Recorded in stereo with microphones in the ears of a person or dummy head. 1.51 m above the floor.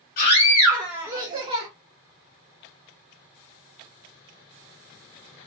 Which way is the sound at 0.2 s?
45° left (ahead or behind).